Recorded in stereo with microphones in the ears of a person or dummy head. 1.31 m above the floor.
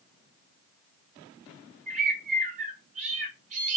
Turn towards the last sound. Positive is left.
turn(degrees=-40)  # may be behind; listen again after turning